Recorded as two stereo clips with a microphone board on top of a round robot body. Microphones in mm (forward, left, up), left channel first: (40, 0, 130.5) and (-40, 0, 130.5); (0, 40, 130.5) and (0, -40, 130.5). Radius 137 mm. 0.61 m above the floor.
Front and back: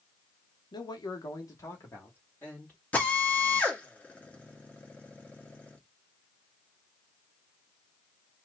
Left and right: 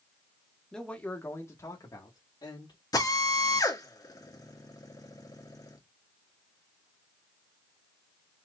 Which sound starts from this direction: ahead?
A man speaking, at 0.7 s.